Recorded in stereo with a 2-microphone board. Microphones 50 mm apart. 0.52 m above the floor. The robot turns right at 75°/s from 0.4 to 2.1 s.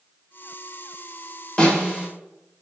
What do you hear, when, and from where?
1.6 s a snare drum: 150° left, 2.5 m; by 2.1 s 175° right, 2.5 m